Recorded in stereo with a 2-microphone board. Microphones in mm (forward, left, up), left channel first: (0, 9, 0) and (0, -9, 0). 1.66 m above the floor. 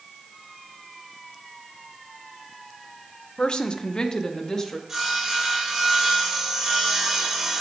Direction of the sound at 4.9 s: 20° right (ahead or behind).